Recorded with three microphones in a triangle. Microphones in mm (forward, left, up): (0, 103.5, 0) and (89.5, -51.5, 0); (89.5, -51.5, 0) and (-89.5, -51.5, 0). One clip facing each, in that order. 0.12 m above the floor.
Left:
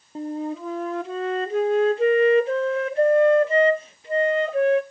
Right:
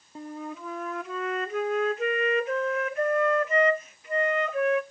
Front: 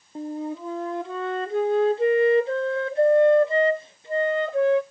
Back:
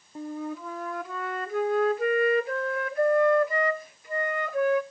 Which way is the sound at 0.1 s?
60° left.